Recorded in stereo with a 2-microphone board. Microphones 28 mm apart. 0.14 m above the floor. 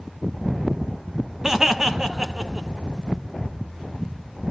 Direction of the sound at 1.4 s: 20° right (ahead or behind).